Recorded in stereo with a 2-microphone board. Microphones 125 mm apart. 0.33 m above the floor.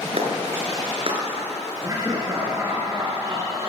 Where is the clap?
55° right (ahead or behind), 4.5 m.